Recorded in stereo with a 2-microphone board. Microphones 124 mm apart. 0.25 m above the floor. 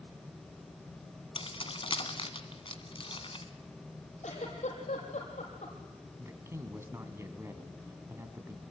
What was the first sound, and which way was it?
Keys jangling, 45° left (ahead or behind).